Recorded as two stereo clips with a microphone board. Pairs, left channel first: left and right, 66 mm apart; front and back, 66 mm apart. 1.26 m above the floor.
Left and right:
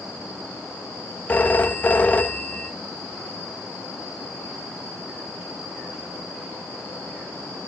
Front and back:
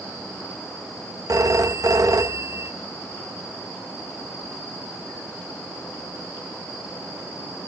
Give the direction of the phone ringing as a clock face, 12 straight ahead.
7 o'clock.